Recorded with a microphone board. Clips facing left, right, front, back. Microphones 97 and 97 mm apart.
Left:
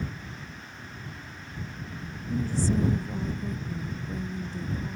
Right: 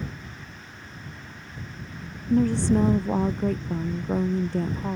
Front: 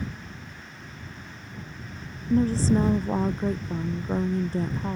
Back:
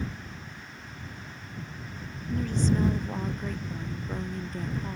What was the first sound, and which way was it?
A woman speaking, 60° right.